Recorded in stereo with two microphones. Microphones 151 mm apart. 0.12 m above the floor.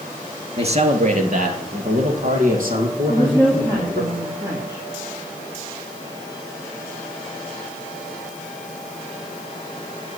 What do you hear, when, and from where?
0.6 s a man speaking: 45° right (ahead or behind), 1.7 m; by 4.1 s 60° right (ahead or behind), 5 m
3.1 s a woman speaking: 20° right (ahead or behind), 2.5 m